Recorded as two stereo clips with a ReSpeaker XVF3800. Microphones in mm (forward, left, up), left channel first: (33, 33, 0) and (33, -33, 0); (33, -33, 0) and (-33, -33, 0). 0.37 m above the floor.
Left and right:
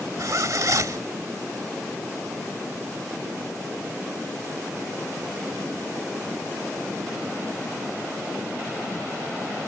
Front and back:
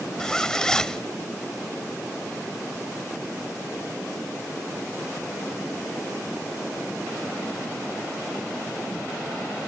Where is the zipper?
80° right.